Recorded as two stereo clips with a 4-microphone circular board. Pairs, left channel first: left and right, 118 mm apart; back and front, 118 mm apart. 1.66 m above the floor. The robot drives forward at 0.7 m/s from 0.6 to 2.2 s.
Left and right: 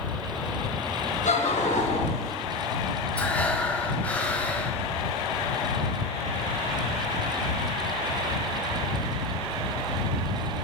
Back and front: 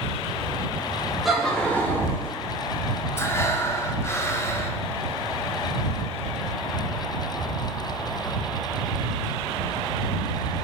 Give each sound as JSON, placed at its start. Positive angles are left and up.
{"t": 1.2, "sound": "laughter", "azimuth_deg": 90, "distance_m": 1.5}
{"t": 3.2, "sound": "breathing", "azimuth_deg": 155, "distance_m": 0.6}